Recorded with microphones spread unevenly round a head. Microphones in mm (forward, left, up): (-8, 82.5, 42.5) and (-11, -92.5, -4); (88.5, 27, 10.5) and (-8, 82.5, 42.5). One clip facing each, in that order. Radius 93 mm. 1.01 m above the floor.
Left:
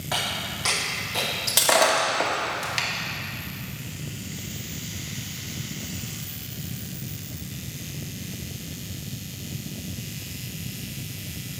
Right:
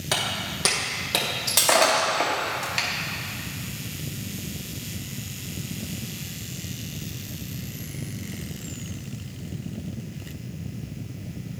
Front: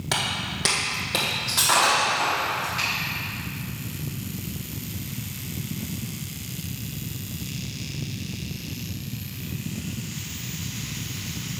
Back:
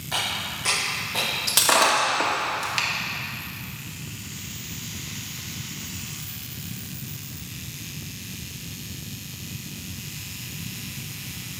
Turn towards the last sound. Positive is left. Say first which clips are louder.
# even, back 1 dB
turn(degrees=170)